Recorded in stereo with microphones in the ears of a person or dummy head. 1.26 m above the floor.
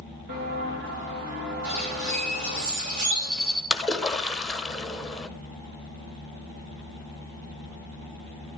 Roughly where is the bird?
Right.